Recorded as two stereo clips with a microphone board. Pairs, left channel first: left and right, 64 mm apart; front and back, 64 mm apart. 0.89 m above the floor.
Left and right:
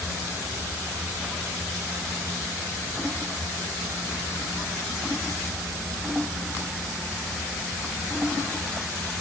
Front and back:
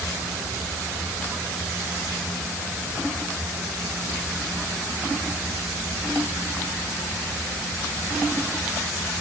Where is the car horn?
No car horn in this recording.